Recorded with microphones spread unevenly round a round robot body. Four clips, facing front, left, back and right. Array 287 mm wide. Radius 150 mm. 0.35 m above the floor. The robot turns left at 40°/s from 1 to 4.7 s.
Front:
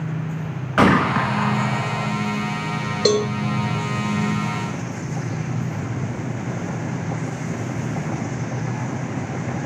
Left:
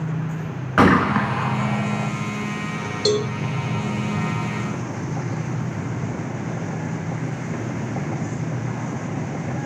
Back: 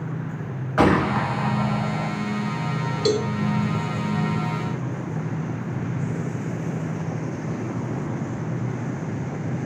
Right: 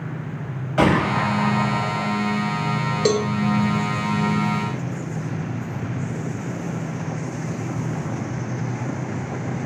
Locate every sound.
0.8 s a gunshot: 65° left, 2 m; by 2.1 s 25° left, 2 m
3.0 s a cowbell: 35° right, 1.3 m; by 3.3 s 40° right, 1.3 m